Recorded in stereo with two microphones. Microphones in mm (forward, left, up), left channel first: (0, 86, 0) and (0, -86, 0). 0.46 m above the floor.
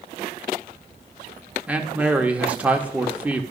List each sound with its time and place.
1.7 s a man speaking: 10° right (ahead or behind), 0.7 m